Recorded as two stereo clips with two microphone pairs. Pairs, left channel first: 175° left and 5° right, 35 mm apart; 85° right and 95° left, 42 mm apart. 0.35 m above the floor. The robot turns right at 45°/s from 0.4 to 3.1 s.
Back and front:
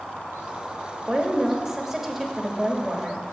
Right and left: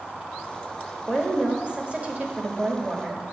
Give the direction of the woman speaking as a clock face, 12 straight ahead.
11 o'clock.